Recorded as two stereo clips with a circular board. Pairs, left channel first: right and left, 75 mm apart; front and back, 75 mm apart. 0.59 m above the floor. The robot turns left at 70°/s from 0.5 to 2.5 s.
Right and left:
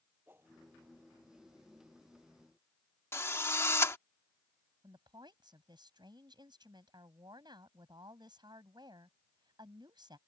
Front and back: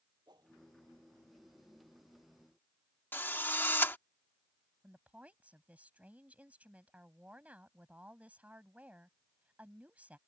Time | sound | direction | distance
0.3 | a whoosh | 150° left | ?
3.1 | a drill | 50° right | ?
4.8 | a woman speaking | 110° left | ?